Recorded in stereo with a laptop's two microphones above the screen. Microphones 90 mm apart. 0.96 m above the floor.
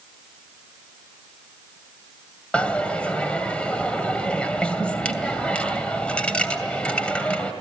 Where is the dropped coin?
15° left (ahead or behind), 2.5 m.